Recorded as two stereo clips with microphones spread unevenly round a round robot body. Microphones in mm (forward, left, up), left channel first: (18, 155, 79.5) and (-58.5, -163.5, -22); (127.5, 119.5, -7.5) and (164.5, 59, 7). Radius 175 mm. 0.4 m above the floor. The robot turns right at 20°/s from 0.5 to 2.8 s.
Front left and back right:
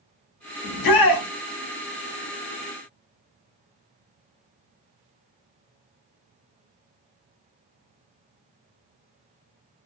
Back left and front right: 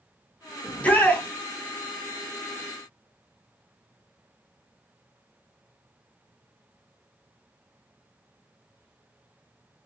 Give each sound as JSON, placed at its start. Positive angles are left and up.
{"t": 0.6, "sound": "a shout", "azimuth_deg": 75, "distance_m": 1.0}